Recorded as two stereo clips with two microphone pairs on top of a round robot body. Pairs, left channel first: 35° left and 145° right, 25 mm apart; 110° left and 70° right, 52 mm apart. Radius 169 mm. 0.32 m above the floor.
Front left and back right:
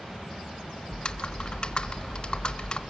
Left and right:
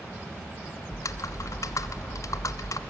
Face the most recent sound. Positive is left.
turn(degrees=85)